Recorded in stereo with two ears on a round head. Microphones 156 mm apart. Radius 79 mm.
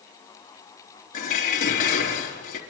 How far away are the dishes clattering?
About 4.5 m.